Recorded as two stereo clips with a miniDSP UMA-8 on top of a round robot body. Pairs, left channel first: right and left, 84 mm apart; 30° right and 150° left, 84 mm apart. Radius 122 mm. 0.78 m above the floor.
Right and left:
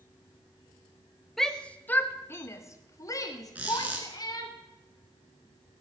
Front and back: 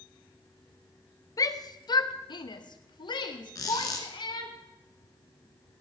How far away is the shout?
About 0.9 m.